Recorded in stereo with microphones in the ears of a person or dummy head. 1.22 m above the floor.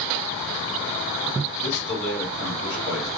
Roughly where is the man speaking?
Left.